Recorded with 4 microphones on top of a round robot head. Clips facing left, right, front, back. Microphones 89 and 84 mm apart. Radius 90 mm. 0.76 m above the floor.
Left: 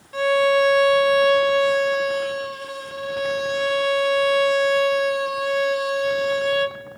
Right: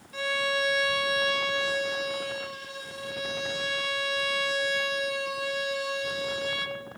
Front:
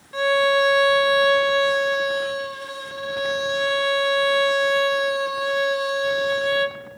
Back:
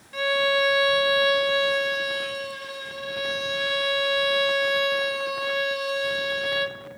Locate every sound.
0.1 s a violin: 55° left, 1.5 m